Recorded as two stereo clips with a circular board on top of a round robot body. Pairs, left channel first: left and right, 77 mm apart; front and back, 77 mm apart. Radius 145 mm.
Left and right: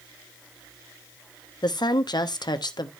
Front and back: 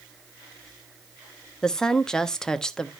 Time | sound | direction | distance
1.6 | a woman speaking | 80° left | 1.3 m